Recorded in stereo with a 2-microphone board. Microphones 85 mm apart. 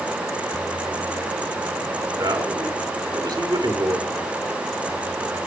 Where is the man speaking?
55° right (ahead or behind), 2.5 m.